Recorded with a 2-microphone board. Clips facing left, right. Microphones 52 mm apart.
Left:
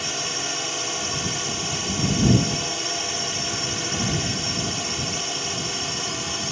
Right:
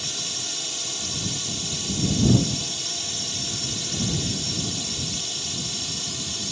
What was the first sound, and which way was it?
A drone, 45° left (ahead or behind).